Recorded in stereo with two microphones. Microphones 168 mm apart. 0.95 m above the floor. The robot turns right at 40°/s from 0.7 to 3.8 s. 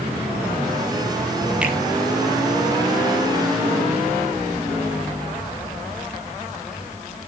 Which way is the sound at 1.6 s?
5° right (ahead or behind).